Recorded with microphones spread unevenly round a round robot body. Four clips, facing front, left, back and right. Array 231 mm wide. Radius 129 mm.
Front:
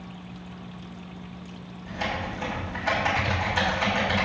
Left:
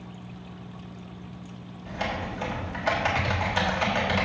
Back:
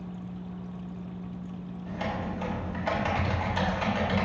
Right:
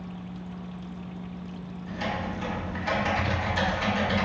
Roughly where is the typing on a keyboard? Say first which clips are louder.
Even, front 2 dB; left.